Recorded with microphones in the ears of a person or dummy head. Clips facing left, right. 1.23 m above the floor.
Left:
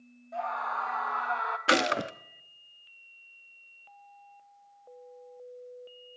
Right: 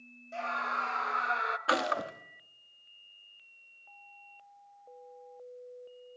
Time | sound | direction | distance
0.3 | a scream | 35° right (ahead or behind) | 2.5 m
1.7 | a gunshot | 30° left (ahead or behind) | 1.0 m